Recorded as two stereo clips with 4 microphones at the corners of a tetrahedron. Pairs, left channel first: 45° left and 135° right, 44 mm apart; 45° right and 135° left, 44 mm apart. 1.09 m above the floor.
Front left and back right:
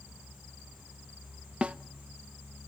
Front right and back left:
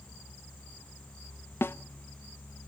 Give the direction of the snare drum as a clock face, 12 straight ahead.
2 o'clock.